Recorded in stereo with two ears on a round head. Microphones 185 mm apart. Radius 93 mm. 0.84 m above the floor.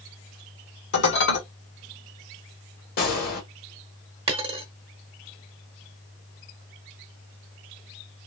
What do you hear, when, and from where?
0.9 s dishes clattering: 60° left (ahead or behind), 1.4 m
3.0 s a gunshot: 45° left (ahead or behind), 1.2 m
4.3 s a dropped coin: 30° right (ahead or behind), 0.8 m